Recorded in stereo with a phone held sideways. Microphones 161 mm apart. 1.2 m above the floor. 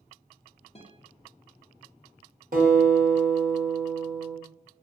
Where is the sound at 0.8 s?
40° left (ahead or behind), 0.6 m.